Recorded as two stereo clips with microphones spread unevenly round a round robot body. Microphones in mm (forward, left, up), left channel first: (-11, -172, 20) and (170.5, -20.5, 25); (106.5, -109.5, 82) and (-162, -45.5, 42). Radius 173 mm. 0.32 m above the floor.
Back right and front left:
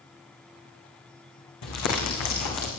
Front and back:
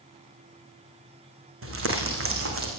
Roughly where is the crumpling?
Behind right.